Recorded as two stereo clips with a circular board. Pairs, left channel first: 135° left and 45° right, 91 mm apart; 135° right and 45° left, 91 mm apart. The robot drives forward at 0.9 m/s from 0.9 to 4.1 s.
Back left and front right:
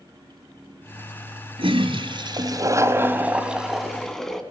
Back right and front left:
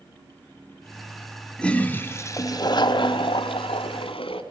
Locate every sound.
1.6 s a toilet flushing: 55° right, 1.5 m; by 4.4 s 140° right, 1.9 m